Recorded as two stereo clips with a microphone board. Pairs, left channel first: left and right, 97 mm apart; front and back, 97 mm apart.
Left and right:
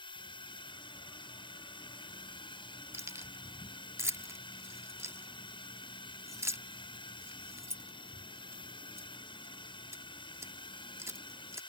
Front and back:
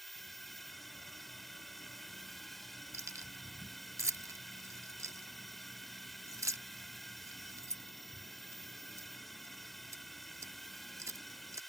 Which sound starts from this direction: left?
A drone, at 0.0 s.